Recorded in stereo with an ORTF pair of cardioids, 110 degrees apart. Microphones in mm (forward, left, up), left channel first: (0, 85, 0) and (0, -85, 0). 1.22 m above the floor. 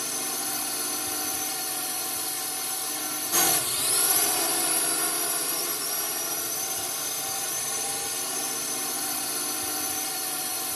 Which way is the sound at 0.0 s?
Straight ahead.